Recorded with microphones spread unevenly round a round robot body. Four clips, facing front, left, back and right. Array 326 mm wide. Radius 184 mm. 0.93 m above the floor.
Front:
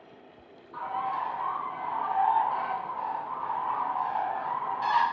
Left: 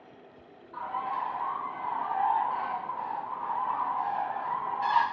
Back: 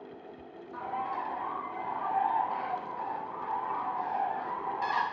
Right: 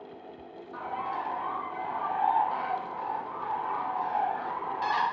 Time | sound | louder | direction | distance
0.7 | a bird | left 1 dB, front 3 dB | 135° right | 0.7 m